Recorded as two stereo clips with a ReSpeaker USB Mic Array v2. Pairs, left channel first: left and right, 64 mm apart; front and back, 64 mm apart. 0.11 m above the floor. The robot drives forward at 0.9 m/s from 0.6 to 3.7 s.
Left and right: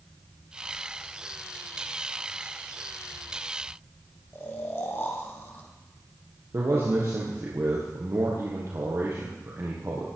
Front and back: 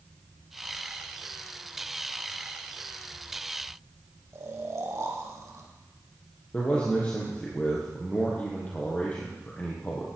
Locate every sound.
4.3 s snoring: 140° left, 2.5 m
6.5 s a man speaking: 65° right, 3 m